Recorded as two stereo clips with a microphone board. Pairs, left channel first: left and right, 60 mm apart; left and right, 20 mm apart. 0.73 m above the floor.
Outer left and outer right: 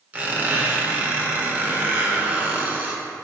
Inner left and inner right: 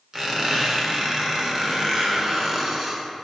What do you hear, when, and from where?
0.1 s a squeak: 25° right (ahead or behind), 1.3 m